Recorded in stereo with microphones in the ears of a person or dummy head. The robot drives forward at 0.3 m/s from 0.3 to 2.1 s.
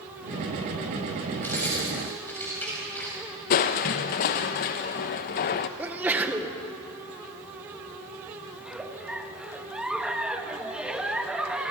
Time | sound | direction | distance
1.4 | keys jangling | 10° left (ahead or behind) | 7 m
3.5 | crushing | 35° left (ahead or behind) | 0.8 m
5.8 | a sneeze | 10° right (ahead or behind) | 1.8 m
8.6 | a giggle | 5° right (ahead or behind) | 1.4 m